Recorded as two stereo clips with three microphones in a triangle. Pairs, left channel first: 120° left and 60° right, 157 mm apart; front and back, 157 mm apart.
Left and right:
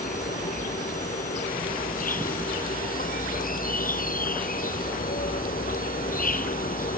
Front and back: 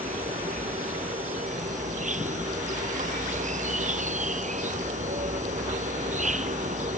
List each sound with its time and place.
0.0 s an insect: 145° left